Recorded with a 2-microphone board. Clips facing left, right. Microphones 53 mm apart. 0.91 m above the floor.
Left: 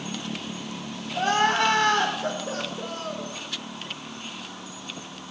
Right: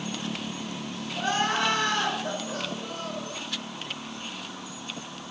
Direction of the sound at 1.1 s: 75° left (ahead or behind).